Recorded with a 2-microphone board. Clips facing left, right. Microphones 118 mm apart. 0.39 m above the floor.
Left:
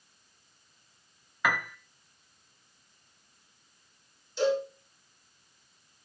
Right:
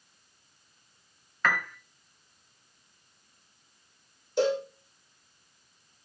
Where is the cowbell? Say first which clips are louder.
Right 1 dB; 45° right (ahead or behind), 9 m.